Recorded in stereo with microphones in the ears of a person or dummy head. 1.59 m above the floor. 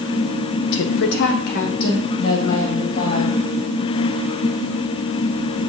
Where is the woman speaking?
70° left (ahead or behind), 0.6 m; by 3.4 s 50° left (ahead or behind), 2.5 m.